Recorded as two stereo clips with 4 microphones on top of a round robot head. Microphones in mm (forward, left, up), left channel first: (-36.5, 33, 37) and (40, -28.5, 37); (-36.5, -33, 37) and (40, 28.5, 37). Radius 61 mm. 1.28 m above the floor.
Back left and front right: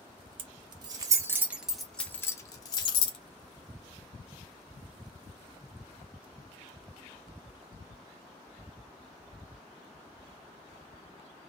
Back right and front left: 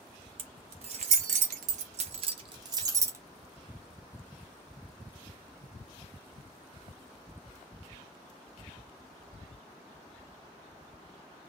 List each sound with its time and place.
0.4 s keys jangling: straight ahead, 1.2 m; by 3.2 s 100° left, 1.2 m